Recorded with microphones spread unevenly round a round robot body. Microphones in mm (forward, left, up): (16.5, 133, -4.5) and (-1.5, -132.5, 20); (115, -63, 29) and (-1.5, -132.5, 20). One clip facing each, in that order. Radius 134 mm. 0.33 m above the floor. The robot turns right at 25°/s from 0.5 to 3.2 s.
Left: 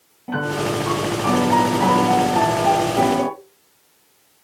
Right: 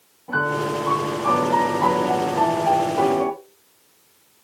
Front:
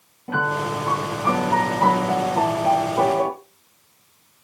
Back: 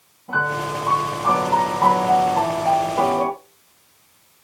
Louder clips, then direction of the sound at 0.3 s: Left 2 dB, even; 50° left.